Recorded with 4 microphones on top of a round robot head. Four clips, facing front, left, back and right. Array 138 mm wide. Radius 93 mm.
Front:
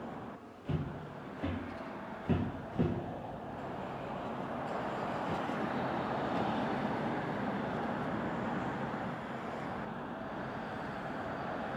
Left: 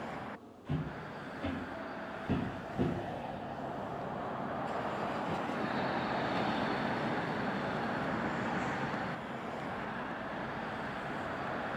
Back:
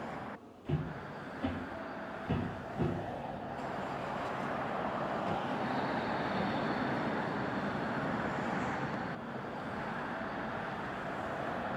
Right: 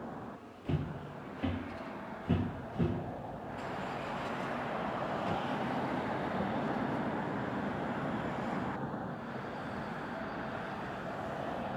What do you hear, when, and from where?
0.7 s footsteps: 95° right, 1.2 m; by 2.9 s 15° left, 1.2 m